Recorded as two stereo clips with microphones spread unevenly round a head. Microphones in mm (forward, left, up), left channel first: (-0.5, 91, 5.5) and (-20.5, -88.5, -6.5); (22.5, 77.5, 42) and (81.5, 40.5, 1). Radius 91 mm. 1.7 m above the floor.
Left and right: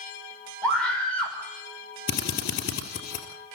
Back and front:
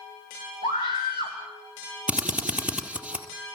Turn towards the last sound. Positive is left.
turn(degrees=50)